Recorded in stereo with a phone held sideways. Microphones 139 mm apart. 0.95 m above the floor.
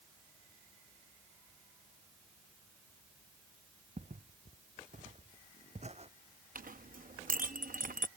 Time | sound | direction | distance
4.0 | footsteps | 65° right (ahead or behind) | ?
6.5 | a clink | 85° right | ?